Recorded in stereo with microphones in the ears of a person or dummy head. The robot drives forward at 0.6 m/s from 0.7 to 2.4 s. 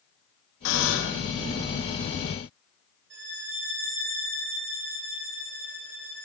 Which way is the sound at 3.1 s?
65° right (ahead or behind).